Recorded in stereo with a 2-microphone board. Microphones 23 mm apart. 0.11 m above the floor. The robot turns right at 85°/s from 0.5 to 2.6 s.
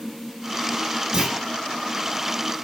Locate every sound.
1.1 s a clunk: 40° right (ahead or behind), 2.0 m; by 1.4 s 25° right (ahead or behind), 2.0 m